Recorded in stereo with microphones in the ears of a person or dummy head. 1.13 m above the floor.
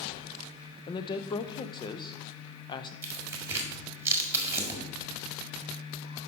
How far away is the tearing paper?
About 1.7 m.